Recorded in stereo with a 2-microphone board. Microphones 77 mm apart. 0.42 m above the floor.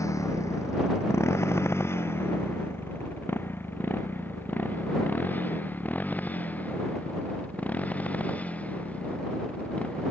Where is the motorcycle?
45° left (ahead or behind); by 10.1 s 15° left (ahead or behind).